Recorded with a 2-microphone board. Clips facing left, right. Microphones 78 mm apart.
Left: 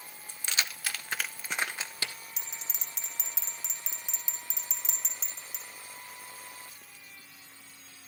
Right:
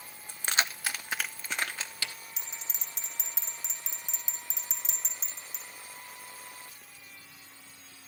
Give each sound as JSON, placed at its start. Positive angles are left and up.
{"t": 0.3, "sound": "keys jangling", "side_deg": -50, "distance_m": 0.6}
{"t": 2.4, "sound": "a bell", "side_deg": 85, "distance_m": 3.5}